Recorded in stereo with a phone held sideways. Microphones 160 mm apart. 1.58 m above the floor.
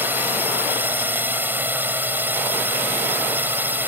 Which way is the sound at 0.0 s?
10° right (ahead or behind).